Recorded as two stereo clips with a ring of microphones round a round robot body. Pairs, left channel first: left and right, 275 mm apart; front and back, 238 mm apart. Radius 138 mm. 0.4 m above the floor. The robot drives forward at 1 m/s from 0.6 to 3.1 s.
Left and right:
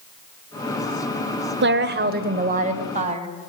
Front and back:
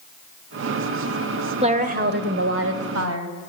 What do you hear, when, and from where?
1.6 s a woman speaking: 120° right, 1.6 m; by 3.3 s 155° right, 2.5 m